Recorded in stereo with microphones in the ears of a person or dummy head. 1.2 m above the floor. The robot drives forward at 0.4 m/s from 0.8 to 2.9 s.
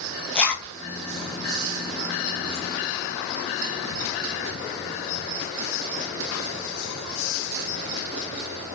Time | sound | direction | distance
0.3 | a zipper | 5° left (ahead or behind) | 0.5 m